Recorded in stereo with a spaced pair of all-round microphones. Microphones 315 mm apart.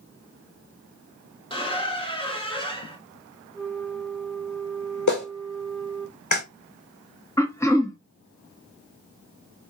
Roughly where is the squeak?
Centre.